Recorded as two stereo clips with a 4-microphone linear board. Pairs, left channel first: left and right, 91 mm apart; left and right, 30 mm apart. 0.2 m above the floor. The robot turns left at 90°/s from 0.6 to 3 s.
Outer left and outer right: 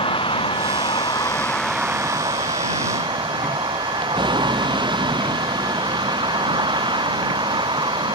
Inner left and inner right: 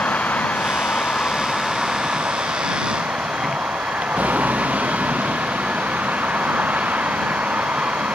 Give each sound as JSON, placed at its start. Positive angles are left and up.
{"t": 0.0, "sound": "a vehicle", "azimuth_deg": 100}